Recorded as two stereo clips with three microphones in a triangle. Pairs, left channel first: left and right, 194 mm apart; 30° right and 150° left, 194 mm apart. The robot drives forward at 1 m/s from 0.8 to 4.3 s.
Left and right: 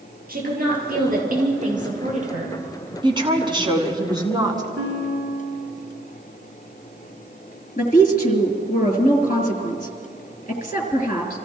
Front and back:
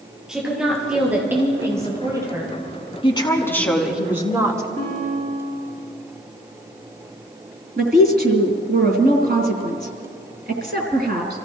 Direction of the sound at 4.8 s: 165° right.